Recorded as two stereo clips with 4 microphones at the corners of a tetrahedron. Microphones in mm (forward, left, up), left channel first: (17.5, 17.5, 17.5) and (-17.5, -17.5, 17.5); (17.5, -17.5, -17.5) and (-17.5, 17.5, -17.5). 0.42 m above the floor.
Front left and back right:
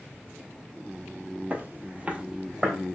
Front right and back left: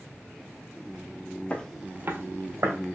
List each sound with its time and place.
1.5 s footsteps: 95° right, 0.5 m; by 2.8 s 145° left, 1.3 m